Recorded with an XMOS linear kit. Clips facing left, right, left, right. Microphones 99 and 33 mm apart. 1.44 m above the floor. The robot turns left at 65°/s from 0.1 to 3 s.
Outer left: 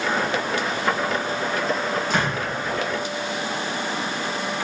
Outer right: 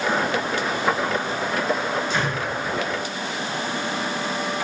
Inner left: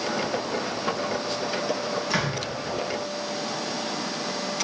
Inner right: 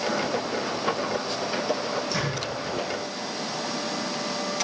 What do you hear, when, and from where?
2.1 s a door slam: 50° left (ahead or behind), 9 m; by 2.4 s 70° left (ahead or behind), 9 m